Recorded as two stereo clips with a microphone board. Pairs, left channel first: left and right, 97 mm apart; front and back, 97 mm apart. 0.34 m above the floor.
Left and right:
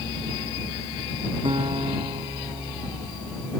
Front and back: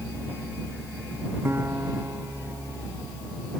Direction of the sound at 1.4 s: 115° right.